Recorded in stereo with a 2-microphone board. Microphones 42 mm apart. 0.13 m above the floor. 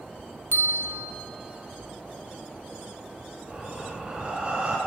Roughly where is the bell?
Right.